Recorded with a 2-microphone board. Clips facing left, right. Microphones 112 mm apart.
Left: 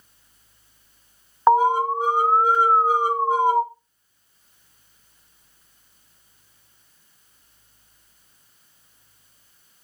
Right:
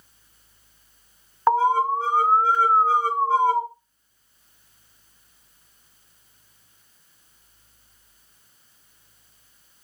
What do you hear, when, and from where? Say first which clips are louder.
1.5 s an alarm: left 2 dB; 15° left (ahead or behind), 0.6 m